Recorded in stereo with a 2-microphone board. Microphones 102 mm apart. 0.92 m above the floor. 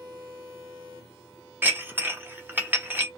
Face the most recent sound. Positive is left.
turn(degrees=-20)  # may be behind; listen again after turning